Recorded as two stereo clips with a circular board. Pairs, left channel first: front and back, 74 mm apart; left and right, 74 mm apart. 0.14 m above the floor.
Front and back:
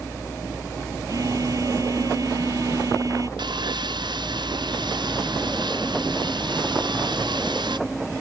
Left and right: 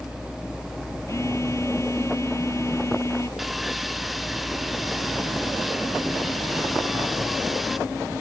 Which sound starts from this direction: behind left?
A phone buzzing, at 1.1 s.